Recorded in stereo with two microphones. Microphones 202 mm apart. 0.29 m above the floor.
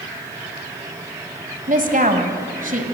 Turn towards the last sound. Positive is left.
turn(degrees=-45)  # may be behind; listen again after turning